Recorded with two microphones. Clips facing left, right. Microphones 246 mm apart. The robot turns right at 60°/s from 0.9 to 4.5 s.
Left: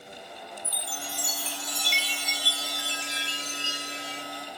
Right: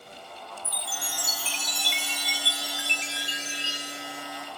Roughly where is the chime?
Behind right.